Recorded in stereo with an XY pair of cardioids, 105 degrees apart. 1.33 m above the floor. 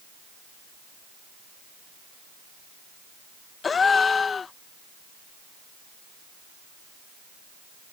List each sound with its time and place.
3.6 s a gasp: 40° left